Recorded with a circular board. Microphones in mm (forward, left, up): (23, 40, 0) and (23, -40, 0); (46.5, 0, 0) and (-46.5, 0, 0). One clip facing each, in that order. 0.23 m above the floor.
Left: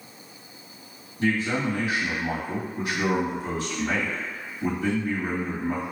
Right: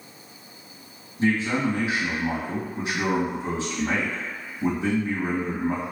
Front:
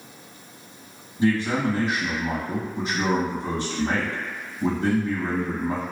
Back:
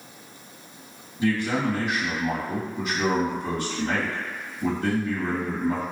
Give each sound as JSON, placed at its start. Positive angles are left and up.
{"t": 1.2, "sound": "a man speaking", "azimuth_deg": -40, "distance_m": 1.7}